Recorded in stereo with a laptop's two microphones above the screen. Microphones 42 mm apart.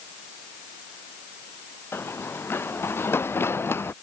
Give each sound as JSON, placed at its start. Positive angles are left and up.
{"t": 1.9, "sound": "running footsteps", "side_deg": 70}